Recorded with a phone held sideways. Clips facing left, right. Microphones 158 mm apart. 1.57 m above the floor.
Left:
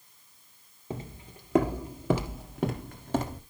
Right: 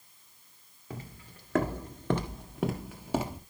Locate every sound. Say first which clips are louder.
0.9 s footsteps: left 5 dB; 25° left (ahead or behind), 1.7 m; by 3.4 s 10° right (ahead or behind), 1.9 m